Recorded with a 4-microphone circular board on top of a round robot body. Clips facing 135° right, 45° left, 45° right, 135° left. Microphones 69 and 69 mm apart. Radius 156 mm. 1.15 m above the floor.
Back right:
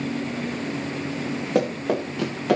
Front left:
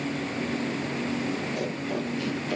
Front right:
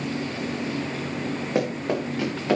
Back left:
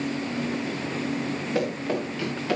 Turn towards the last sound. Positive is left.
turn(degrees=-110)